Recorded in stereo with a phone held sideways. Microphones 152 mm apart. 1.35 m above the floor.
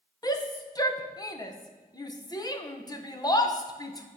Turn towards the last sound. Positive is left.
turn(degrees=25)  # may be behind; listen again after turning